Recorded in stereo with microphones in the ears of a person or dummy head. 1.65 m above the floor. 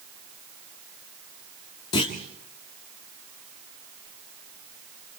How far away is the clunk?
About 1.6 m.